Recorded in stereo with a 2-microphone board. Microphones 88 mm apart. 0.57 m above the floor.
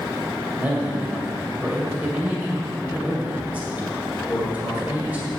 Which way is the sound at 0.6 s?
20° right (ahead or behind).